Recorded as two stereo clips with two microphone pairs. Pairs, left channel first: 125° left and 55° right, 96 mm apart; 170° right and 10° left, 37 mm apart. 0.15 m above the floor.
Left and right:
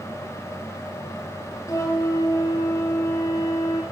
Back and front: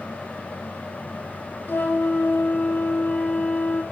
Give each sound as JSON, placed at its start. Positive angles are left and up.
{"t": 1.7, "sound": "a flute", "azimuth_deg": 175, "distance_m": 0.8}